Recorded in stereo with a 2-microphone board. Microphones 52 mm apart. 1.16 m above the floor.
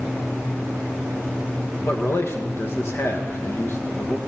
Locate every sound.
1.9 s a man speaking: 50° left (ahead or behind), 1.3 m